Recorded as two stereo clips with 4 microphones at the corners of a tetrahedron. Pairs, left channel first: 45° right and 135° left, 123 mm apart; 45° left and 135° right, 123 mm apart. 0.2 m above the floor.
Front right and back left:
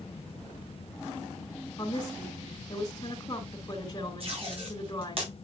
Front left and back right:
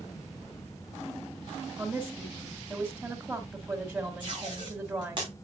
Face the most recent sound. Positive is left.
turn(degrees=175)